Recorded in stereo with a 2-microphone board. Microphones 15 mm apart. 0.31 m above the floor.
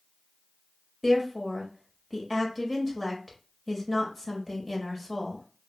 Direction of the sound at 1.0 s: Centre (ahead or behind).